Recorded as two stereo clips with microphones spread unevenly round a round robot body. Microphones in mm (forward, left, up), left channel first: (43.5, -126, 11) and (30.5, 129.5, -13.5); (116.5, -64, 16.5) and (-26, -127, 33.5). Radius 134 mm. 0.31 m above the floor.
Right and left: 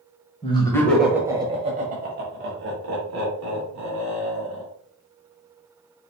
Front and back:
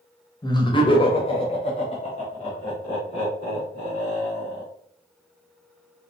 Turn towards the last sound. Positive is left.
turn(degrees=80)